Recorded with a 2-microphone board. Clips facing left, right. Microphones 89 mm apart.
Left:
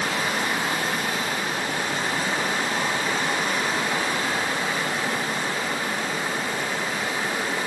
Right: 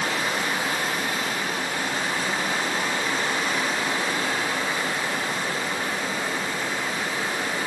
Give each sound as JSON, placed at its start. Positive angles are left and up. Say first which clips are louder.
{"t": 0.0, "sound": "running water", "louder": "left 1 dB", "side_deg": 60, "distance_m": 1.3}